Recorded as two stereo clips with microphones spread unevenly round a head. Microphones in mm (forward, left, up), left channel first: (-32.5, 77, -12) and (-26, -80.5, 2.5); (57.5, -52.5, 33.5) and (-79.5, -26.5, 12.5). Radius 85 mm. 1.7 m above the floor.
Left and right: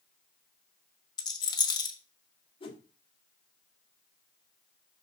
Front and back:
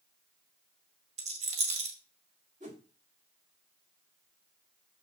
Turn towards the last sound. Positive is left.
turn(degrees=135)